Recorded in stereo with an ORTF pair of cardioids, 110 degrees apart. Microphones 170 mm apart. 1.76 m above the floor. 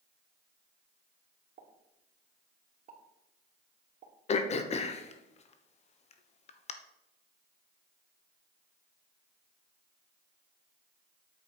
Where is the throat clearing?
40° left, 1.3 m.